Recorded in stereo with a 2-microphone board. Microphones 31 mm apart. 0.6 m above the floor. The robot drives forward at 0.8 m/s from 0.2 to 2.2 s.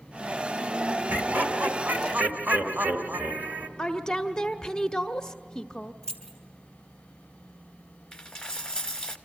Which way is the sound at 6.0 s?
30° left (ahead or behind).